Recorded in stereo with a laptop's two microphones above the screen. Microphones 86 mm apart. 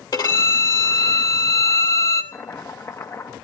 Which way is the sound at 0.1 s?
55° left (ahead or behind).